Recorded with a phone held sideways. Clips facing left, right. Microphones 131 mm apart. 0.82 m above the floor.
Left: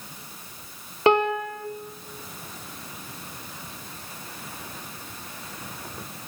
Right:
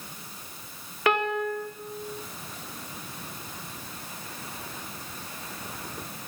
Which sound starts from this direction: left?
A piano, at 1.1 s.